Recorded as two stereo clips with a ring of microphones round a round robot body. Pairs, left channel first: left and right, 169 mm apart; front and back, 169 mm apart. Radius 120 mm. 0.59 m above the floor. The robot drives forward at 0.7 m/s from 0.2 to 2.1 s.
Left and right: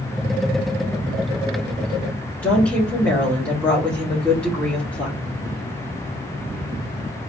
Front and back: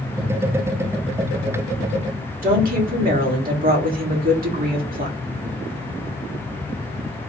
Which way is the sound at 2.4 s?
175° left.